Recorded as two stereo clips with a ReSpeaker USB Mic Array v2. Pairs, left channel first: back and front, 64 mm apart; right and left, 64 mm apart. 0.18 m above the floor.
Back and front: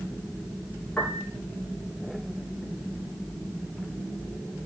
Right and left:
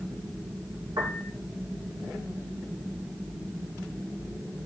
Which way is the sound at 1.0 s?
110° left.